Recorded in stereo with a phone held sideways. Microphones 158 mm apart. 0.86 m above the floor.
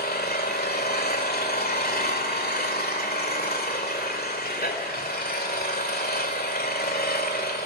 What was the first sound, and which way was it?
An engine running, 80° left.